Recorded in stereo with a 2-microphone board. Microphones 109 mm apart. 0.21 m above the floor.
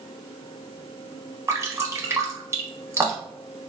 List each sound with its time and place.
1.5 s dripping: 25° right (ahead or behind), 0.8 m